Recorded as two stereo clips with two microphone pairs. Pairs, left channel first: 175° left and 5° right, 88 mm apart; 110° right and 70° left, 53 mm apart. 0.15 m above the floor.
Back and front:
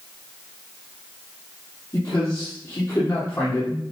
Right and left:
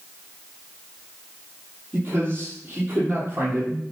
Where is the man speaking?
125° left, 5.5 m.